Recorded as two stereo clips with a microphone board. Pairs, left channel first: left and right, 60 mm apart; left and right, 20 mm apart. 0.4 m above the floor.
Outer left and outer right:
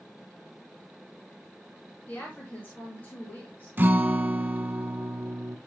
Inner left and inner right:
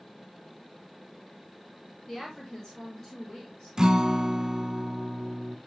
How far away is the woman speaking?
About 5 m.